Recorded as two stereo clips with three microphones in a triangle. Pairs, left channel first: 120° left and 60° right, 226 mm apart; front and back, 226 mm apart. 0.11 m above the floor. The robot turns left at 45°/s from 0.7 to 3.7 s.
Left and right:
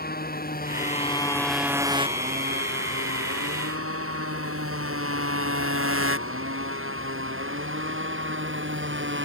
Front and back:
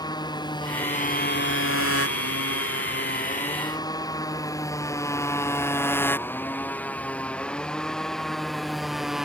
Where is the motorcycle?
70° left; by 9.3 s 90° right.